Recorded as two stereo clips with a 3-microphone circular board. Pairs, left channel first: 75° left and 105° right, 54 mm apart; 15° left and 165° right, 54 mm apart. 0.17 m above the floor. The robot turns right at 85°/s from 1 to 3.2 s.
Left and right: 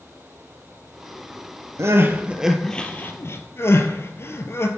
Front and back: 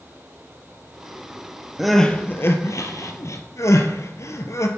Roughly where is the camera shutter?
I don't hear a camera shutter.